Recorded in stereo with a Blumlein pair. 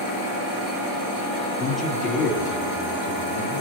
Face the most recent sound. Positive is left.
turn(degrees=50)